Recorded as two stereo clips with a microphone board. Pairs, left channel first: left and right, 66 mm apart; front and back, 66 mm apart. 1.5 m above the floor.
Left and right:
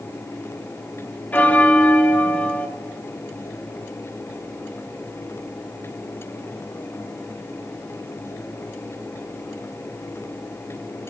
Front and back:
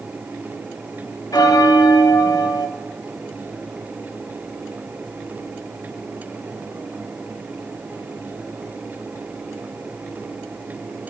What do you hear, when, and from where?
1.3 s a bell: 25° left, 0.6 m